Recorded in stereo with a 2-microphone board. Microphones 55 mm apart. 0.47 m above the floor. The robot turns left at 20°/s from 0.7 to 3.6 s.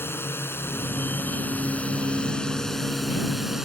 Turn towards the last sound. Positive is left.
turn(degrees=-10)